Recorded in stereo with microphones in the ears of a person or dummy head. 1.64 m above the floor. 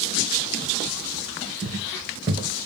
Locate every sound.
1.6 s footsteps: 20° right (ahead or behind), 1.7 m